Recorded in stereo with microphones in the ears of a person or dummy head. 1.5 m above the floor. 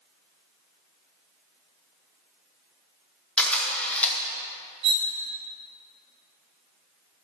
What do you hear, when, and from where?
3.4 s a camera shutter: 10° left (ahead or behind), 1.5 m
4.8 s cutlery clinking: 65° right (ahead or behind), 2.5 m